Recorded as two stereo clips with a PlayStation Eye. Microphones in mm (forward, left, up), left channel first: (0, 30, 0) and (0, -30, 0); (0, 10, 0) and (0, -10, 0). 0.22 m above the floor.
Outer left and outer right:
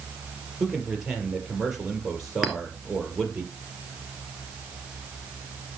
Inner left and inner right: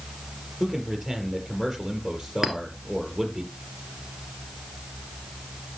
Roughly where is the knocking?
I don't hear knocking.